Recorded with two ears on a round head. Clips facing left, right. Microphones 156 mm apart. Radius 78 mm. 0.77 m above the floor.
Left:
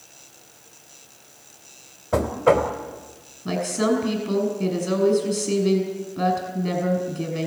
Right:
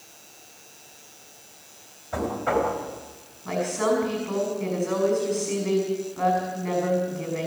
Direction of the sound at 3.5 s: 40° left (ahead or behind).